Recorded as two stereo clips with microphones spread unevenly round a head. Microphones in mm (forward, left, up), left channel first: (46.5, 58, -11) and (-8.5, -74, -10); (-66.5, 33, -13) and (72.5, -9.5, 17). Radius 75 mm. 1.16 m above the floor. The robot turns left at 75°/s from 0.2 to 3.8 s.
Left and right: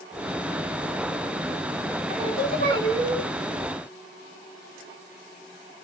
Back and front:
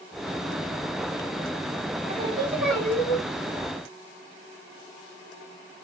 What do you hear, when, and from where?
2.1 s singing: 55° right, 3 m; by 3.2 s 145° right, 3 m